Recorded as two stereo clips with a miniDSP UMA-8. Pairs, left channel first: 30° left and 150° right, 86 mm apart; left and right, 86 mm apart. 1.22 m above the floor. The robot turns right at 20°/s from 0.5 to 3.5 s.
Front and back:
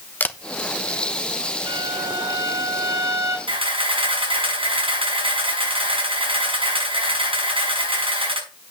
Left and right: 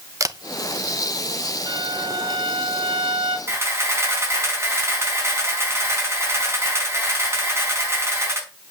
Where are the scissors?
I don't hear scissors.